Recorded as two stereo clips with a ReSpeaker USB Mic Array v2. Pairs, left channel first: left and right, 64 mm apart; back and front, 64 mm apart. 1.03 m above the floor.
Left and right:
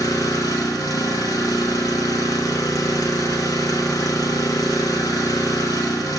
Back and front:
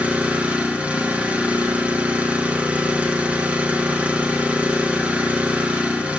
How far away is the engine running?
About 1.3 m.